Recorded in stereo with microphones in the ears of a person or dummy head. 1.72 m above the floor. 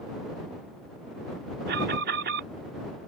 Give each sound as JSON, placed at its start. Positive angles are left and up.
{"t": 1.7, "sound": "an alarm", "side_deg": -50}